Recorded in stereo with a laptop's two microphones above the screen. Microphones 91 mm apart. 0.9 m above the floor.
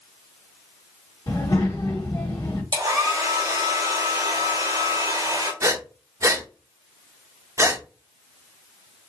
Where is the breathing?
35° right (ahead or behind), 0.6 m.